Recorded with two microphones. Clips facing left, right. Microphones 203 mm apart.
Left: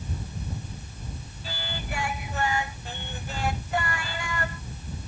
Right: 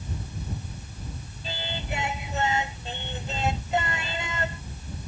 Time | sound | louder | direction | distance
1.4 | singing | right 2 dB | 20° right (ahead or behind) | ?